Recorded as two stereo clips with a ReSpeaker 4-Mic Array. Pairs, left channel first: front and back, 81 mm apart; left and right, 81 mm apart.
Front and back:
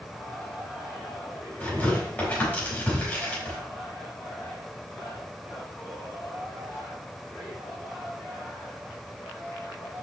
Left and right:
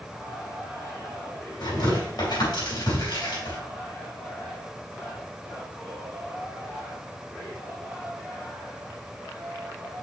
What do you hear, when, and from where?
1.6 s tearing paper: 70° left, 4 m